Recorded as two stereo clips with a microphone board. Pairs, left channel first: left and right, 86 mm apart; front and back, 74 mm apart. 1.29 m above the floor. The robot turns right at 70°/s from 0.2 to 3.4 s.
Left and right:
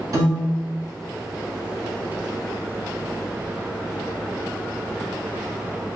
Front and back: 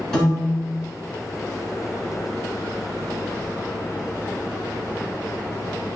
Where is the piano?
85° right, 1.6 m; by 0.7 s 50° right, 1.6 m.